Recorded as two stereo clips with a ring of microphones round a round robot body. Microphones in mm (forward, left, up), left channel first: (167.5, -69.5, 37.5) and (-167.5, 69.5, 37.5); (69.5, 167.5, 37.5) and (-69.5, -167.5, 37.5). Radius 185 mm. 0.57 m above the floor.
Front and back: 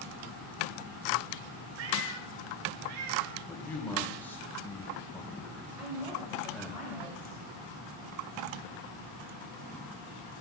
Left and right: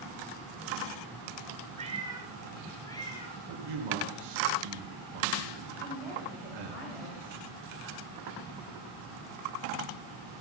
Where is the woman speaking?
75° left, 3.5 m.